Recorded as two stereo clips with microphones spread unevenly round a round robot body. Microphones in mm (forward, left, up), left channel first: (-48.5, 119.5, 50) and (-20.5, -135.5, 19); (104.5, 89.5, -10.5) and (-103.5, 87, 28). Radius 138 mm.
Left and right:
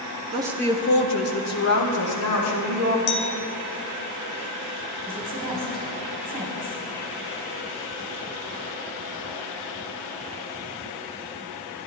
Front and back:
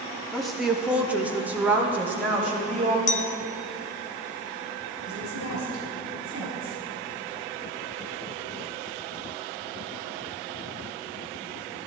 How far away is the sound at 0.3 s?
About 0.9 m.